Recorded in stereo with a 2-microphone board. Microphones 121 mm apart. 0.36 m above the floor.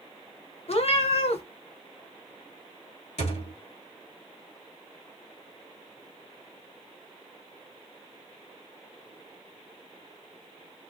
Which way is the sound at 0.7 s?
55° left (ahead or behind).